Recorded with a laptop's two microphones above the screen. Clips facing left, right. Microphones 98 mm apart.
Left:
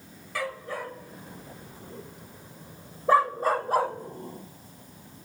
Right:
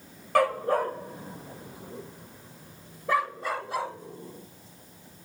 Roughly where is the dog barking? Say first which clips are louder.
Right 10 dB; right.